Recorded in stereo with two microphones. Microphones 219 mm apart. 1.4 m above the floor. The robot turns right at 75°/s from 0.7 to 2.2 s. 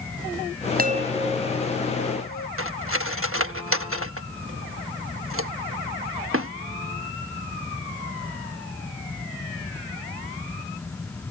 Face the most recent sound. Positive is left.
turn(degrees=-65)  # may be behind; listen again after turning